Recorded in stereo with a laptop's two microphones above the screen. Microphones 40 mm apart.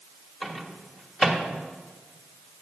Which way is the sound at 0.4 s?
10° left (ahead or behind).